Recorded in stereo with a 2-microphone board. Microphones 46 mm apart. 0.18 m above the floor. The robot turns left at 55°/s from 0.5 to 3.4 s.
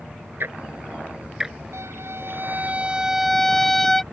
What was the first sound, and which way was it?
Ticking, 50° right (ahead or behind).